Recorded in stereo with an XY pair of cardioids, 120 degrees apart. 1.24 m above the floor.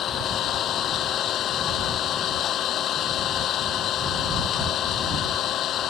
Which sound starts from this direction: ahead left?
An engine running, at 0.0 s.